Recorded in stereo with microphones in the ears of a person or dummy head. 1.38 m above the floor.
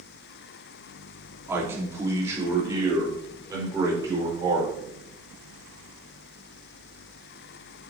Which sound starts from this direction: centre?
A man speaking, at 1.5 s.